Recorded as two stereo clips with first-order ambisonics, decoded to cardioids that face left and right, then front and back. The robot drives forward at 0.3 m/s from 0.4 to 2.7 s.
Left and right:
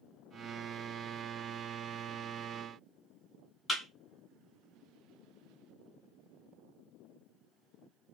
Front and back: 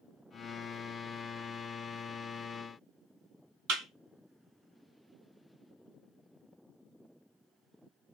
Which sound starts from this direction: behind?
A thud, at 3.7 s.